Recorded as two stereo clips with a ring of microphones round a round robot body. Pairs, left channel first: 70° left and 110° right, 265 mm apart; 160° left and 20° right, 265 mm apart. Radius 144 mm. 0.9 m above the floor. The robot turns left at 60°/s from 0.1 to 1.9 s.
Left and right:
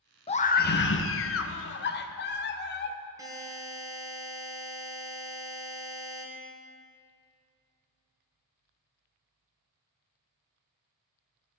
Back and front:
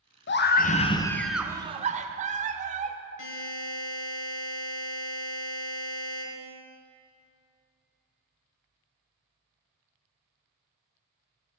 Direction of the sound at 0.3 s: 130° left.